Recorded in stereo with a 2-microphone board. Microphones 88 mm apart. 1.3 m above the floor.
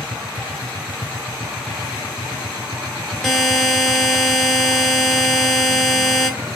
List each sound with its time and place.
3.2 s a buzzer: 5° left (ahead or behind), 1.9 m